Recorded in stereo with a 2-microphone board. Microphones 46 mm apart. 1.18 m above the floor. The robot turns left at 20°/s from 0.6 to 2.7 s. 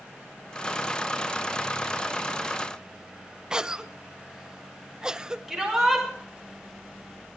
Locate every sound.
3.5 s a cough: 15° right (ahead or behind), 0.5 m
5.5 s a shout: centre (ahead or behind), 6 m